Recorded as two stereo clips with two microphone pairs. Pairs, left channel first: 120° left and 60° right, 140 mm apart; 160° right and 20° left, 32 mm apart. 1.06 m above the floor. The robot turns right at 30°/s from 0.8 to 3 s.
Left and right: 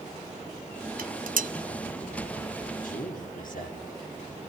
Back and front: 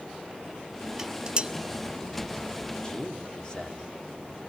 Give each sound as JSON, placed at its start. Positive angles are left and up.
{"t": 1.0, "sound": "dishes clattering", "azimuth_deg": -55, "distance_m": 0.6}
{"t": 2.8, "sound": "a man speaking", "azimuth_deg": 130, "distance_m": 3.0}